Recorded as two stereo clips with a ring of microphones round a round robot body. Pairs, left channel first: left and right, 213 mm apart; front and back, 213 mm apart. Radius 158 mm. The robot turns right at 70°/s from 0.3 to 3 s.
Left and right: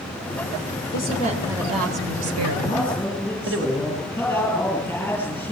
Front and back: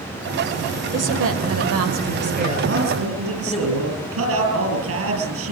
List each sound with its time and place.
0.9 s a woman speaking: 145° left, 3.5 m; by 3.7 s 70° right, 3.5 m
2.7 s a man speaking: 150° left, 7.5 m; by 5.5 s 175° left, 7.5 m